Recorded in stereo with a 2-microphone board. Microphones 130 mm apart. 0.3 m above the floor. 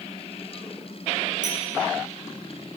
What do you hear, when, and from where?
1.4 s a clink: 80° right, 3 m